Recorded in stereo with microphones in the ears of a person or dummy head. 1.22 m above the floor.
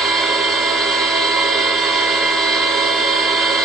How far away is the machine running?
About 0.8 m.